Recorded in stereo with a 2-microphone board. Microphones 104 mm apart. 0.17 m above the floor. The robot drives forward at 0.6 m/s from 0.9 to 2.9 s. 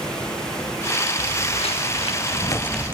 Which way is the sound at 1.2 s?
80° left.